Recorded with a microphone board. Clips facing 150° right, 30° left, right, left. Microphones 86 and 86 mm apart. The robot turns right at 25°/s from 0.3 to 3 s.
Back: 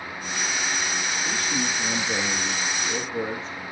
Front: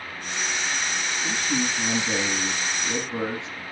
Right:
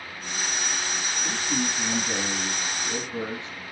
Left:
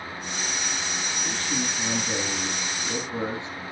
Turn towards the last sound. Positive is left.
turn(degrees=20)